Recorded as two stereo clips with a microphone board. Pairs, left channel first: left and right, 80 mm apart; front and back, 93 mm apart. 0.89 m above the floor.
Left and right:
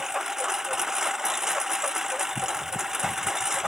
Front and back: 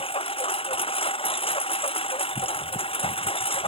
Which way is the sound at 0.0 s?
5° right.